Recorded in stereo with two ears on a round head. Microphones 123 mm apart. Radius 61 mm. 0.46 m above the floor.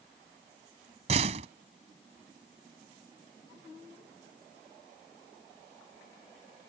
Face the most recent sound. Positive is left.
turn(degrees=-50)  # may be behind; listen again after turning